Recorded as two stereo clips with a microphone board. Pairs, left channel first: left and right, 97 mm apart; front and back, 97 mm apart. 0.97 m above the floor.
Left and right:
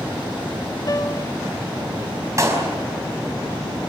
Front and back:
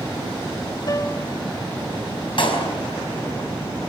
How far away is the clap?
About 5 m.